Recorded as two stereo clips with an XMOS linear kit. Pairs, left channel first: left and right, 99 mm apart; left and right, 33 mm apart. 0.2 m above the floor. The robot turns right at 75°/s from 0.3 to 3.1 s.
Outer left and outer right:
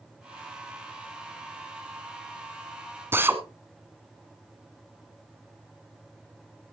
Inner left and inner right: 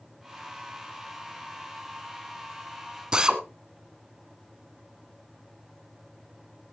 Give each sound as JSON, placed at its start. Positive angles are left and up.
{"t": 3.1, "sound": "a drill", "side_deg": -25, "distance_m": 1.7}